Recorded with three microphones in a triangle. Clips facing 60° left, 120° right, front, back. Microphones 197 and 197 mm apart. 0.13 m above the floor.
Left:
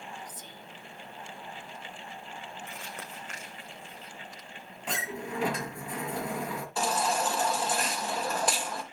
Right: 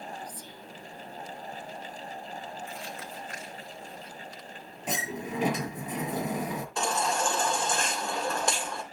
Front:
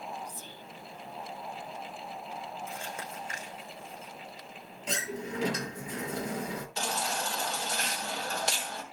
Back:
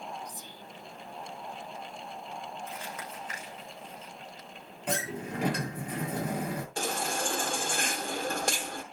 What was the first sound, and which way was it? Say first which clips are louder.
Whispering: right 3 dB, even; 115° left.